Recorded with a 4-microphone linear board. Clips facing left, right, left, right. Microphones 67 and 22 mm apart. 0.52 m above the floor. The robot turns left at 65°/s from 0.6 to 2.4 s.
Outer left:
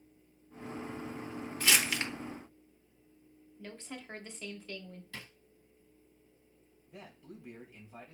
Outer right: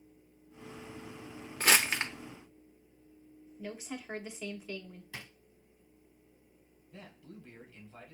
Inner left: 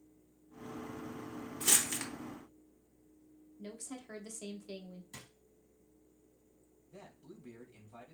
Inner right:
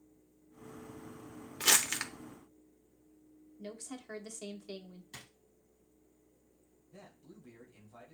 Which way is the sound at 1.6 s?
50° right (ahead or behind).